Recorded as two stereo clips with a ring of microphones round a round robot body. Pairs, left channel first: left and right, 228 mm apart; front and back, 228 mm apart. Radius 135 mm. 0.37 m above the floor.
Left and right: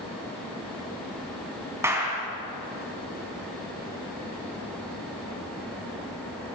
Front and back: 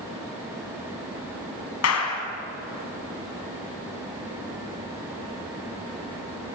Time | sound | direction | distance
1.8 | a clap | 10° right | 3.5 m